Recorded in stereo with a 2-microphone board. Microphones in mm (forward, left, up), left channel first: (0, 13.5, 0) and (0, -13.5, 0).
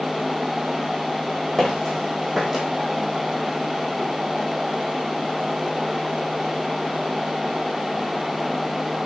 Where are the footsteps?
15° left (ahead or behind), 1.8 m; by 2.6 s 10° right (ahead or behind), 1.8 m.